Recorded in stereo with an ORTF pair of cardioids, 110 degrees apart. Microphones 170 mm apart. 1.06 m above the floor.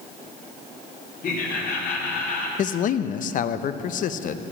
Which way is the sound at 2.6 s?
55° left.